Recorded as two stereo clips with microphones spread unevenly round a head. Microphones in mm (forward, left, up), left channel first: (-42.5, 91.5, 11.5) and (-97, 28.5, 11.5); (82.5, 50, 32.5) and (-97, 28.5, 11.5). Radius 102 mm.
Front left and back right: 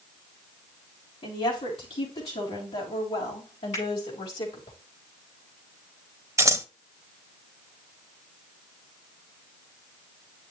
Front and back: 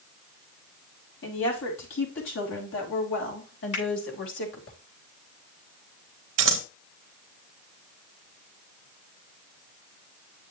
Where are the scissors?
Straight behind, 1.1 m.